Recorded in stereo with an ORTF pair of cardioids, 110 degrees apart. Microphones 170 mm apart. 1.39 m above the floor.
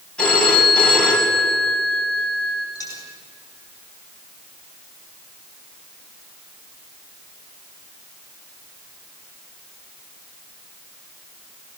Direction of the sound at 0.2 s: 5° left.